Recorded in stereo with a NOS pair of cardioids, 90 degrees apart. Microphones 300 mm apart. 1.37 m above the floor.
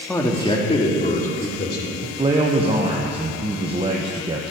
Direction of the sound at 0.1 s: 5° left.